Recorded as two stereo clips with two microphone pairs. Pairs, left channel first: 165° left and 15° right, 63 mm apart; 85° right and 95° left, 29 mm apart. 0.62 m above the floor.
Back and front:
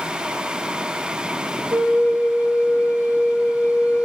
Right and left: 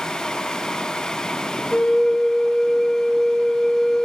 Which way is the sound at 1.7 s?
5° right.